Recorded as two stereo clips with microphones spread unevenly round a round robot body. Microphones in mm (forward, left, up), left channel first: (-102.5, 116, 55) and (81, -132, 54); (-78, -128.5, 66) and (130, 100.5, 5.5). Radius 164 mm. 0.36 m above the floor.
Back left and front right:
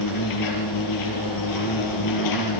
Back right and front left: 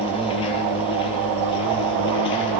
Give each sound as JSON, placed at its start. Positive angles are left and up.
{"t": 0.0, "sound": "an insect", "azimuth_deg": 150, "distance_m": 5.5}